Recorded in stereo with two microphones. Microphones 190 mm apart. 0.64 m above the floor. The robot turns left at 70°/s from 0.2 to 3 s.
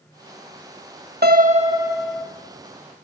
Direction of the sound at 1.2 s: 120° right.